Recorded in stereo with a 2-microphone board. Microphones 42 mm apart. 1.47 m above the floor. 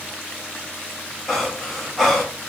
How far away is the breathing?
About 1.0 m.